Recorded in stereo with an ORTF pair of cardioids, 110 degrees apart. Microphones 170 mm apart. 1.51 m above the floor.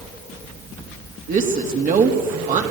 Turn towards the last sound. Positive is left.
turn(degrees=-50)